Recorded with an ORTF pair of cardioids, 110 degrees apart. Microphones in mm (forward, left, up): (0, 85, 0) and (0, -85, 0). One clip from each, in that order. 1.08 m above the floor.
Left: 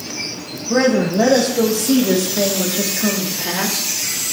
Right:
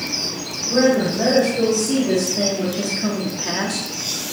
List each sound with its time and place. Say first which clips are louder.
0.7 s a woman speaking: left 1 dB; 60° left, 2.5 m; by 3.9 s straight ahead, 1.8 m